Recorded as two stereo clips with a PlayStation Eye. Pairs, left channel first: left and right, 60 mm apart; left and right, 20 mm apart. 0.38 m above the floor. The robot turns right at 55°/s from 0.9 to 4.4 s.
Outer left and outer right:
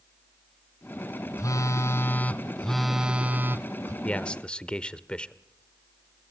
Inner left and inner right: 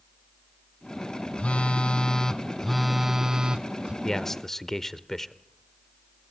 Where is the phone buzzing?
100° left, 1.2 m; by 3.9 s 120° right, 1.2 m.